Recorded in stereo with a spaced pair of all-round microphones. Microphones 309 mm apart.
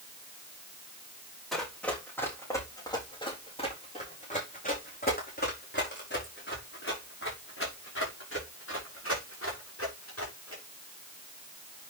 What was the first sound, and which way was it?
Running footsteps, centre (ahead or behind).